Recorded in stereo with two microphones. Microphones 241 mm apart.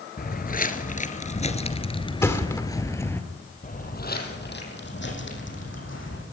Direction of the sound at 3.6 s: 35° left (ahead or behind).